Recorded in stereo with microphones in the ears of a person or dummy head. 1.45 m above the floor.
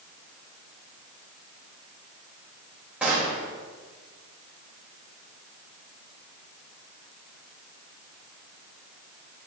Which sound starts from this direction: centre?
A gunshot, at 3.0 s.